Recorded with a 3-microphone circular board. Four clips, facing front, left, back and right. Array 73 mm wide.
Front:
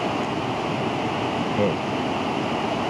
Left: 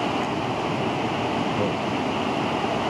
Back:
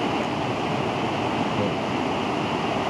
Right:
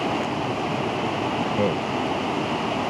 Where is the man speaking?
35° right.